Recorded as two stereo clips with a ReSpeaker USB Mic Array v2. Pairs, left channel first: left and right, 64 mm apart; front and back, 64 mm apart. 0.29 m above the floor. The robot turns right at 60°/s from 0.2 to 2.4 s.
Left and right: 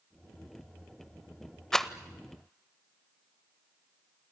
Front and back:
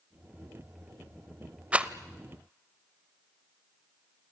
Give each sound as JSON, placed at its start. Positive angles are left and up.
{"t": 1.7, "sound": "a rattle", "azimuth_deg": 160, "distance_m": 0.9}